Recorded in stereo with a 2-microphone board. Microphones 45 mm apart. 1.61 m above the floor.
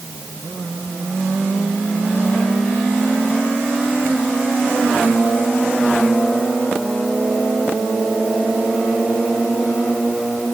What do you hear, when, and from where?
Only background noise.